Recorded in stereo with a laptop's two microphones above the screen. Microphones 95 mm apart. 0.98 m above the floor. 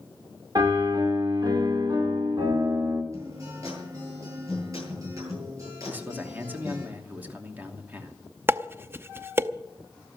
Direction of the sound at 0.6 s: 45° right (ahead or behind).